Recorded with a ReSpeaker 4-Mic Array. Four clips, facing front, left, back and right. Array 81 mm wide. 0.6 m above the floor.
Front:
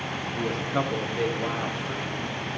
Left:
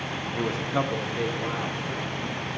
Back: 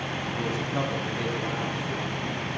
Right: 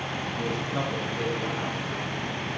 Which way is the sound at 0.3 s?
100° left.